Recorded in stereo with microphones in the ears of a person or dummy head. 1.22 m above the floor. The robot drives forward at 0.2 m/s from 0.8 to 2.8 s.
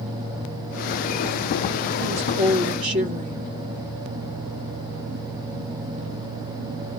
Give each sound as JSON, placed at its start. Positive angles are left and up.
{"t": 2.0, "sound": "a woman speaking", "side_deg": -35, "distance_m": 1.5}